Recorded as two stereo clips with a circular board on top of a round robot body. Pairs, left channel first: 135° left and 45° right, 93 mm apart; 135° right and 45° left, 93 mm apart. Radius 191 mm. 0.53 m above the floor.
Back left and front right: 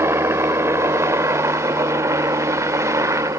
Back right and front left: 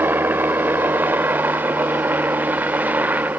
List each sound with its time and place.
0.0 s a helicopter: 10° right; by 3.4 s 15° right